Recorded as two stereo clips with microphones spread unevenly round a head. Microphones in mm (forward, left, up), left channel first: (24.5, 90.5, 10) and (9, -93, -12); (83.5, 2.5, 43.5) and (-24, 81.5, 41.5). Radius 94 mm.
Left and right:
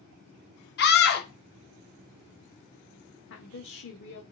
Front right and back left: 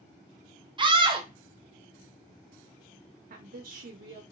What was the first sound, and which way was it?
A scream, 95° left.